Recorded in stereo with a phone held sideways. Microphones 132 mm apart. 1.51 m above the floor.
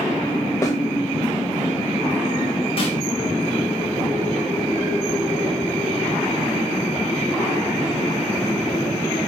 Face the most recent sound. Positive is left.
turn(degrees=45)  # may be behind; listen again after turning